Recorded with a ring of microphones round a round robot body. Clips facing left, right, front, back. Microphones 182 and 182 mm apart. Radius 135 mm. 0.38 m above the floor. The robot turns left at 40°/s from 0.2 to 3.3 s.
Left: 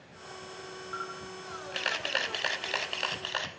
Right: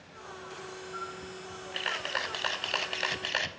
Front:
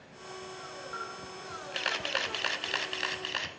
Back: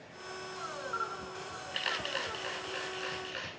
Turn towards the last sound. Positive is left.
turn(degrees=-20)